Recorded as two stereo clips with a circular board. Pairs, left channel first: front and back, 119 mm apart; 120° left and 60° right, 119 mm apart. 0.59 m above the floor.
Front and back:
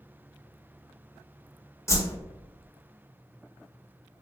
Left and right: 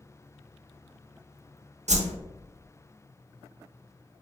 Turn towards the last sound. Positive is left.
turn(degrees=-65)